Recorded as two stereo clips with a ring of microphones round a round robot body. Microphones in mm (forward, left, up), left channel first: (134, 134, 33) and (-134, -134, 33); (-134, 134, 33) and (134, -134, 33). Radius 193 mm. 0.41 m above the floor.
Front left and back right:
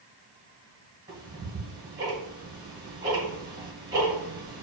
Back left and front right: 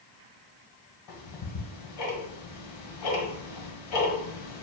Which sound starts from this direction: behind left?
Ticking, at 1.1 s.